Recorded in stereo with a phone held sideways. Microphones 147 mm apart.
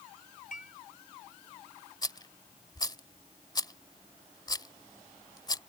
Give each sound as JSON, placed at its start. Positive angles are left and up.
{"t": 0.5, "sound": "dishes clattering", "side_deg": 65}
{"t": 2.0, "sound": "a rattle", "side_deg": 30}